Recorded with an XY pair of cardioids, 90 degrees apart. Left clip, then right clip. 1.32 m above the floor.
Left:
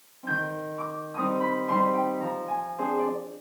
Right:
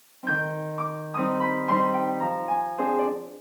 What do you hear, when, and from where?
0.2 s a piano: 65° right, 2.5 m